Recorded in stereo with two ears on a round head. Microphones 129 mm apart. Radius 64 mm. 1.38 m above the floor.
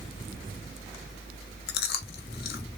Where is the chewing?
75° left (ahead or behind), 0.6 m.